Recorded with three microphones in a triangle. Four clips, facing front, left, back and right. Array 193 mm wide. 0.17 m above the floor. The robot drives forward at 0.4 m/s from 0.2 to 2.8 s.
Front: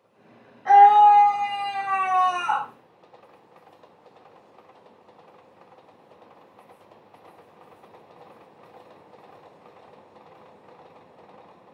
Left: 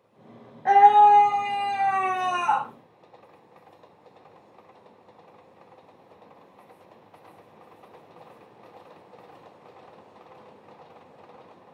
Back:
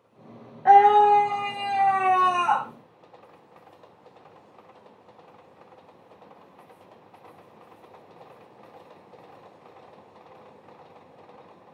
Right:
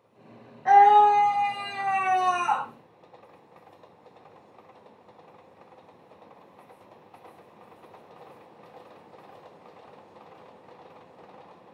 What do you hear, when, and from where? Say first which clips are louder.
0.7 s a scream: left 1 dB, front 2 dB; 155° left, 7 m